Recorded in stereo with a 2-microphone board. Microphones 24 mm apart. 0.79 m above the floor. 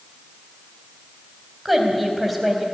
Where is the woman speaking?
Centre (ahead or behind), 3.5 m.